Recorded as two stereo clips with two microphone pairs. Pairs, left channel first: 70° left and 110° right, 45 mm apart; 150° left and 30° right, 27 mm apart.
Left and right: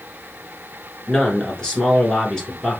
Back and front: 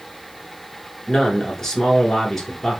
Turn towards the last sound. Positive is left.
turn(degrees=110)